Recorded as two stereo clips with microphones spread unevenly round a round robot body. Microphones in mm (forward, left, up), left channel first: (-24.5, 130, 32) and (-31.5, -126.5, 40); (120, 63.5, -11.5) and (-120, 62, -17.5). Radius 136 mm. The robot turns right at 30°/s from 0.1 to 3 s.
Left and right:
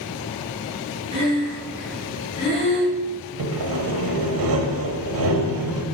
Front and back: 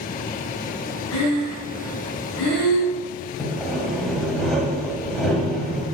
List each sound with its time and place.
1.1 s breathing: 25° right, 4 m; by 3.0 s 30° left, 4 m
3.4 s sawing: 90° right, 1.7 m